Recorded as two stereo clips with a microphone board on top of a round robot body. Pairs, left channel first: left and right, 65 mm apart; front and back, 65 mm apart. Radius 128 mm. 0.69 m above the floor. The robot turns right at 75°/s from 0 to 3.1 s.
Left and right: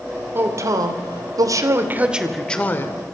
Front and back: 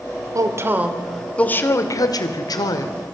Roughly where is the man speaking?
Behind right.